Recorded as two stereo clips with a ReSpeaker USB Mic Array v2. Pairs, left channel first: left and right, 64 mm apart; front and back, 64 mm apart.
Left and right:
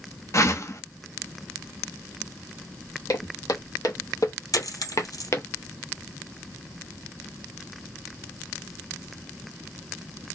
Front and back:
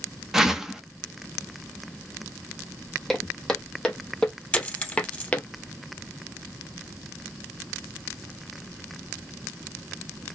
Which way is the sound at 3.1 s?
85° left.